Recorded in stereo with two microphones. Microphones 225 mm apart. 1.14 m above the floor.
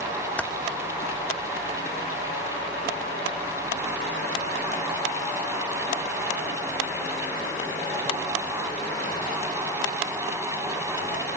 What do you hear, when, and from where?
0.4 s typing on a keyboard: 5° left (ahead or behind), 0.8 m